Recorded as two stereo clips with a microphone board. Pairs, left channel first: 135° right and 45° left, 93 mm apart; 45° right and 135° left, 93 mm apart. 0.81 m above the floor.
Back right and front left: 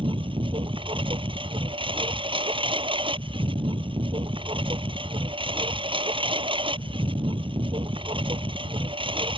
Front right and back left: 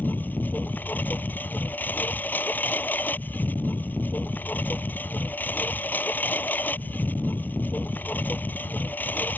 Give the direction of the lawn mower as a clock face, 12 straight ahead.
11 o'clock.